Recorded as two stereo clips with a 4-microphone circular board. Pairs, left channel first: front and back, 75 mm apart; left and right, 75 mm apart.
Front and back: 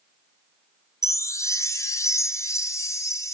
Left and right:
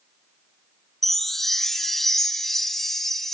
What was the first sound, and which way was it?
A chime, 5° left.